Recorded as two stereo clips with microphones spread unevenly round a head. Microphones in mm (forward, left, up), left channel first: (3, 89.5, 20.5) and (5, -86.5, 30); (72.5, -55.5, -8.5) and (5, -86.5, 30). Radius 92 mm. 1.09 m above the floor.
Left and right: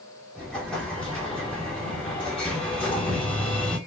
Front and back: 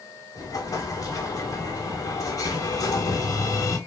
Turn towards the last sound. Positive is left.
turn(degrees=5)